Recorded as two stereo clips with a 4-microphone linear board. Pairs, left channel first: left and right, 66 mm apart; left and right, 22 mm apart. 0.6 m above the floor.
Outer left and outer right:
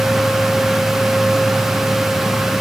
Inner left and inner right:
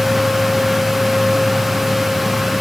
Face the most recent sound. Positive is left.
No sound to turn to.